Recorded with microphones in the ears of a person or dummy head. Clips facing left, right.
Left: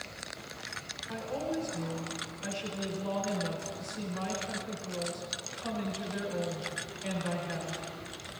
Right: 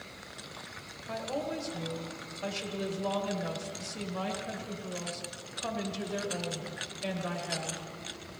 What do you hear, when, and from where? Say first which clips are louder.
1.1 s a woman speaking: even; 75° right (ahead or behind), 2 m